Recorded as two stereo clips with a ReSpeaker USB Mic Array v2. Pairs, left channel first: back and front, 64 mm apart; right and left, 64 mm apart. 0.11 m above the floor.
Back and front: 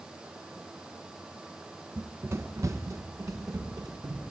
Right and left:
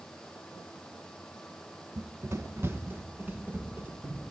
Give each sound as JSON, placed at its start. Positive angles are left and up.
{"t": 2.0, "sound": "running footsteps", "azimuth_deg": 60, "distance_m": 0.6}